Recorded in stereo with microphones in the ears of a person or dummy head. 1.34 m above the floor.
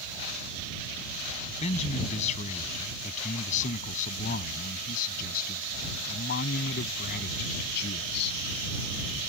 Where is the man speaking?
35° left (ahead or behind); by 8.4 s 60° left (ahead or behind).